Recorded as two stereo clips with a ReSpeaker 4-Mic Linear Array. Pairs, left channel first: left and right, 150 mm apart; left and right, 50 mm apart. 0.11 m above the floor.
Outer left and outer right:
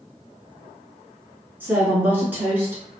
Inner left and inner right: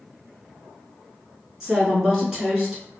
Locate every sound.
1.6 s a woman speaking: 10° right (ahead or behind), 1.3 m